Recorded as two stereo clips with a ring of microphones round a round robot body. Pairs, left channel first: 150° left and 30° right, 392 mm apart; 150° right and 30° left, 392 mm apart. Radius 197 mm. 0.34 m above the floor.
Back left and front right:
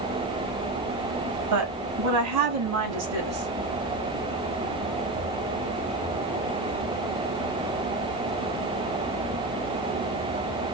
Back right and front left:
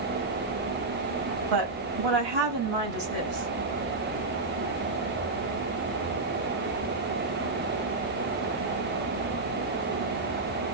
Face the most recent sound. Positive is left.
turn(degrees=20)